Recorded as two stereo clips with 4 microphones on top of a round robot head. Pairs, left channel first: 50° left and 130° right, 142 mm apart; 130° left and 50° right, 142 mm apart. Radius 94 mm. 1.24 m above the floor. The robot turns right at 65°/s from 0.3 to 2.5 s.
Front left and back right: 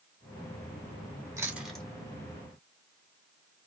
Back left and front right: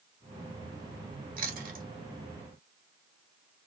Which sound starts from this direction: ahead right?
Chewing, at 1.4 s.